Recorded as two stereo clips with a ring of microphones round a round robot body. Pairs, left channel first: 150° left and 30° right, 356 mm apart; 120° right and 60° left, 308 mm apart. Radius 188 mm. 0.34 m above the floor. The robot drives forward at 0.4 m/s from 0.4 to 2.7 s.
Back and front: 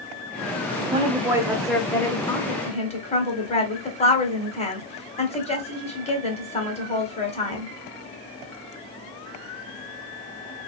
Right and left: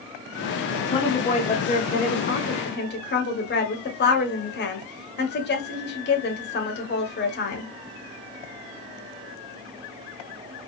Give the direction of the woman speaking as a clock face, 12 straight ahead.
3 o'clock.